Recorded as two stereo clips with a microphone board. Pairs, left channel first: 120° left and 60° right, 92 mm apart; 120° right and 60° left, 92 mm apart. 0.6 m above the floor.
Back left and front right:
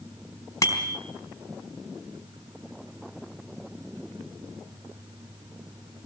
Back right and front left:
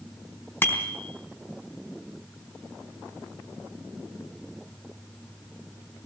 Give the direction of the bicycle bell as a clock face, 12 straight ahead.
6 o'clock.